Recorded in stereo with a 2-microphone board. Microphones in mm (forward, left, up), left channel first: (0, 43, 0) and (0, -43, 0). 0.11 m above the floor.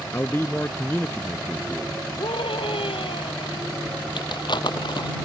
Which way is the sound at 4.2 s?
60° left (ahead or behind).